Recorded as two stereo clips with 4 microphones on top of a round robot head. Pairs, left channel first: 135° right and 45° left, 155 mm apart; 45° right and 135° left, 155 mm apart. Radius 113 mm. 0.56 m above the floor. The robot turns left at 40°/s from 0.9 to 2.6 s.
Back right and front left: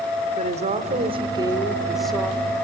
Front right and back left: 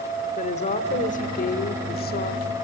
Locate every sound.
0.4 s a woman speaking: straight ahead, 1.6 m; by 2.5 s 65° right, 1.6 m